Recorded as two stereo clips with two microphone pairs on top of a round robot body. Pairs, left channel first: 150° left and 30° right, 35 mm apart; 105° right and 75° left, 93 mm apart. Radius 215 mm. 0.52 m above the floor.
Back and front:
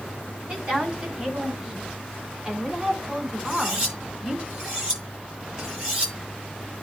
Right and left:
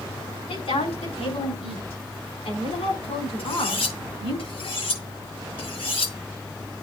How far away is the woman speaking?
About 5.5 m.